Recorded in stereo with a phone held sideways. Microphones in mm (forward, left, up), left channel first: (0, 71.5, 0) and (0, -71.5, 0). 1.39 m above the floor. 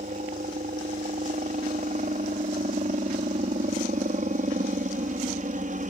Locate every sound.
0.0 s a helicopter: 65° right (ahead or behind)